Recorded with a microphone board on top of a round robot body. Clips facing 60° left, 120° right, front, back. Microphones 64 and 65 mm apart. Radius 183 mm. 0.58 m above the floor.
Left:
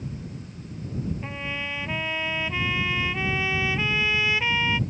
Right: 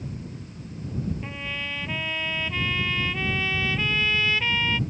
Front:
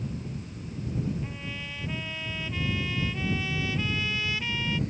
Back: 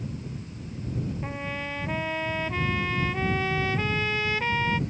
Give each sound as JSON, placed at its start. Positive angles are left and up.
{"t": 1.2, "sound": "a trumpet", "azimuth_deg": 135}